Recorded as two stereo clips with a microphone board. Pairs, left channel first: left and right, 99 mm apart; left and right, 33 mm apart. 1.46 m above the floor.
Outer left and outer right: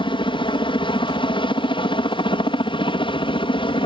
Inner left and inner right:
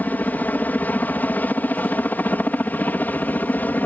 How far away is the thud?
I don't hear a thud.